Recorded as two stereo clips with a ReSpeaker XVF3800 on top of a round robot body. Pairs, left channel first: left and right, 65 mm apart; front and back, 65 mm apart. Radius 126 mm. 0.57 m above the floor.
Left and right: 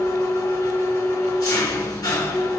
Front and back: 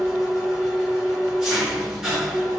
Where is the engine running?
95° left, 1.9 m.